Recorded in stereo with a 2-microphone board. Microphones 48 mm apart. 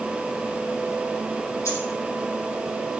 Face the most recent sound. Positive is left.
turn(degrees=85)